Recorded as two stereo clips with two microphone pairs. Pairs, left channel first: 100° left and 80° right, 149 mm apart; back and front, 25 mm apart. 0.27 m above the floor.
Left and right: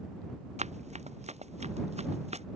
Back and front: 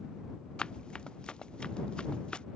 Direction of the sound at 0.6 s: 125° right.